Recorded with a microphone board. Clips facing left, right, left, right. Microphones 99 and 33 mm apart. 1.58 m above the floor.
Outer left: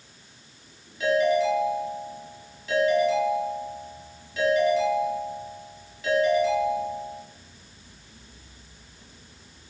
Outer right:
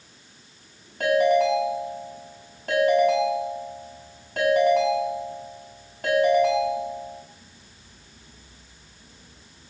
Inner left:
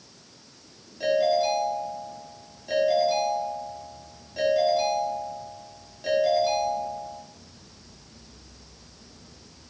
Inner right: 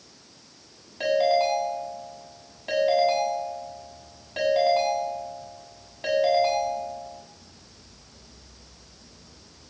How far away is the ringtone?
About 7.5 m.